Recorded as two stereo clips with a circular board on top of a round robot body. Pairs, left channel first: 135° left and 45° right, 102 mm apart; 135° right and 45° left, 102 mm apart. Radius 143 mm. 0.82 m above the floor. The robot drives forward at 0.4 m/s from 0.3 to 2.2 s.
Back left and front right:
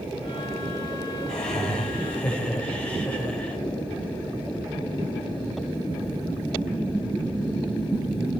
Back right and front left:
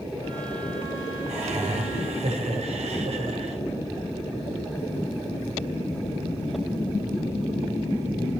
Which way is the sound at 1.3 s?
50° left.